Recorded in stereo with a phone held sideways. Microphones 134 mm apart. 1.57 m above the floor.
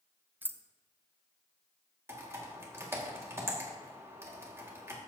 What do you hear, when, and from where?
0.4 s keys jangling: 15° right (ahead or behind), 0.5 m
2.1 s typing on a keyboard: 20° right (ahead or behind), 1.7 m